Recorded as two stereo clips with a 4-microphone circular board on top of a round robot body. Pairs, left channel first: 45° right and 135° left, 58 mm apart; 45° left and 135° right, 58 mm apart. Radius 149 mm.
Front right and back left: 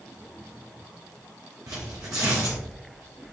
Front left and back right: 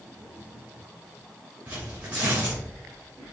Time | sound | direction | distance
1.7 | tearing paper | 165° left | 0.8 m